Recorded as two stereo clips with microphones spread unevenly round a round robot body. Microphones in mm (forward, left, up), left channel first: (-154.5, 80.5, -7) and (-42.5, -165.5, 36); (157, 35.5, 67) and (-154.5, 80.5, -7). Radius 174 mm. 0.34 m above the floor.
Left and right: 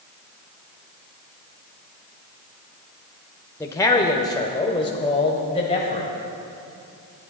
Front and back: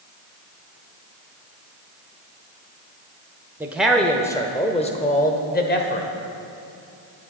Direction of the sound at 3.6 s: 150° left.